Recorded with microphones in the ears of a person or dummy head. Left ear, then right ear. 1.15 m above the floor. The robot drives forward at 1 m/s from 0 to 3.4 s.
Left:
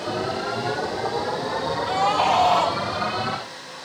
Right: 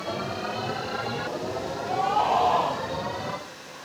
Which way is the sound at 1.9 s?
45° left (ahead or behind).